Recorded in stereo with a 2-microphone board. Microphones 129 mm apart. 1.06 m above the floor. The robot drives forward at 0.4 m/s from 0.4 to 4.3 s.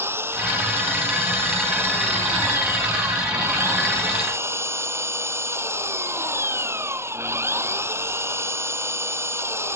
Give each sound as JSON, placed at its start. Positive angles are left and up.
{"t": 0.0, "sound": "an engine running", "side_deg": -15}